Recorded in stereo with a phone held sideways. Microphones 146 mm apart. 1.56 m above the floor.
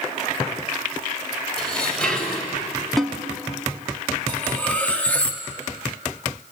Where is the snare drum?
Centre (ahead or behind), 1.8 m.